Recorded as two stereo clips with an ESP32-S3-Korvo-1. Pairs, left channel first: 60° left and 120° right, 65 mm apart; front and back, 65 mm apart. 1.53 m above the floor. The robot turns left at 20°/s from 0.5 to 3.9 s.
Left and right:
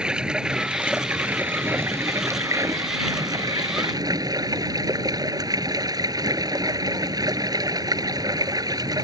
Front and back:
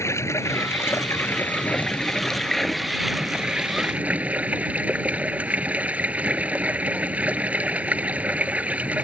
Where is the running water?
45° right; by 9.0 s 110° right.